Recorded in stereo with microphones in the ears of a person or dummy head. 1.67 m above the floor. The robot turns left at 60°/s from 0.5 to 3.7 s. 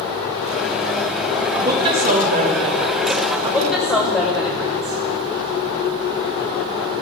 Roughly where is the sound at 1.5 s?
Ahead.